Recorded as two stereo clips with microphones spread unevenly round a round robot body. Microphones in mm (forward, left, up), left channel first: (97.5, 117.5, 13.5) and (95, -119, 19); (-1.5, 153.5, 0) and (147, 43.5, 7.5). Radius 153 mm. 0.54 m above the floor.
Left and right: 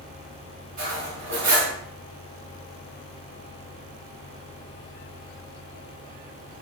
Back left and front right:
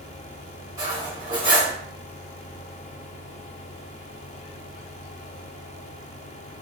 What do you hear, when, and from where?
0.8 s cutlery clinking: 105° right, 1.2 m